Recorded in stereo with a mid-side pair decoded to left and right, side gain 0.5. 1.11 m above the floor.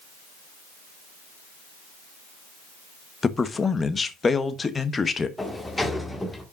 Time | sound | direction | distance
3.2 | a man speaking | 30° left | 1.0 m
5.4 | a sliding door | 15° left | 1.5 m